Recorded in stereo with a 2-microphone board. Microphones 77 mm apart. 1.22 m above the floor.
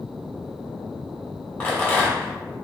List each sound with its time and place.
1.6 s a rattle: 15° left (ahead or behind), 1.3 m